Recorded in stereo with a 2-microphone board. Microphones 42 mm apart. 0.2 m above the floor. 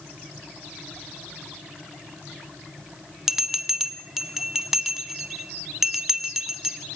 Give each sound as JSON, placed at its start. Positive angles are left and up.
{"t": 3.3, "sound": "a bell", "side_deg": -10, "distance_m": 1.1}